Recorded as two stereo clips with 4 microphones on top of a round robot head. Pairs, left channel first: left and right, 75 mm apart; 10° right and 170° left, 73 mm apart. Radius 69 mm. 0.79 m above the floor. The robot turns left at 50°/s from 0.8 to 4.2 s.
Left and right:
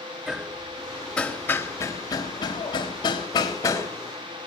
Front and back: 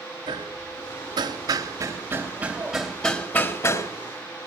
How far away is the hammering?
About 4 m.